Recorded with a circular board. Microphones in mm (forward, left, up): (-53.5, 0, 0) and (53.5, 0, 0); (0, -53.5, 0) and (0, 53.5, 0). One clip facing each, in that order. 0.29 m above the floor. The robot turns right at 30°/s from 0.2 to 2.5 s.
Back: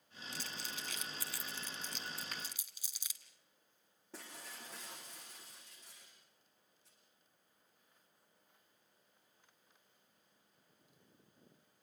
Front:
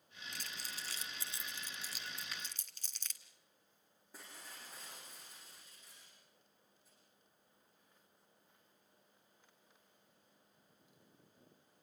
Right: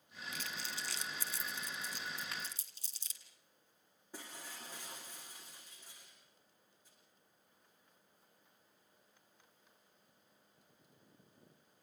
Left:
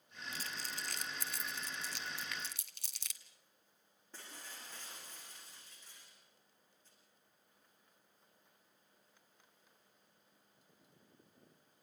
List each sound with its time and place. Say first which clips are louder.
0.3 s crumpling: back 3 dB, right 1 dB; 35° left, 1.6 m; by 3.2 s 100° left, 1.6 m
2.3 s a finger snap: back 2 dB, even; 145° right, 2.5 m
4.1 s breaking glass: back 3 dB, right 3 dB; 170° right, 8.5 m